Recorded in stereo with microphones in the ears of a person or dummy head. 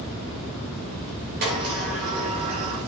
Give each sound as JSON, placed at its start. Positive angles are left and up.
{"t": 1.4, "sound": "a sliding door", "side_deg": -55, "distance_m": 2.5}